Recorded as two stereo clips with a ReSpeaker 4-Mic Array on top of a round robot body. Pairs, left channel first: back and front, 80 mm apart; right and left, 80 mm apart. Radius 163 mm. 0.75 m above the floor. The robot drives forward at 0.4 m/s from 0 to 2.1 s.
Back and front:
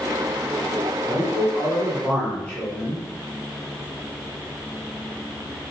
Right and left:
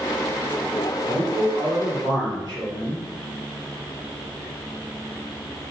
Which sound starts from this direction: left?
A man speaking, at 1.1 s.